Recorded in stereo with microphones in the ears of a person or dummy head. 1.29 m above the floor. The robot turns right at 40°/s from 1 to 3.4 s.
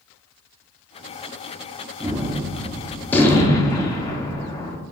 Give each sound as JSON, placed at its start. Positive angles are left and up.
{"t": 2.0, "sound": "a gunshot", "azimuth_deg": -30, "distance_m": 0.6}